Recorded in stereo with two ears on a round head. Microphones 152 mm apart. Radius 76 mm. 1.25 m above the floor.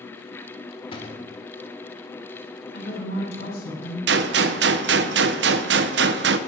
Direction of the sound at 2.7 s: 60° left (ahead or behind).